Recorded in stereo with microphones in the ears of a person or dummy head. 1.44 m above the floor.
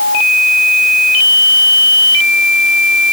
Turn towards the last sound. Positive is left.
No sound to turn to.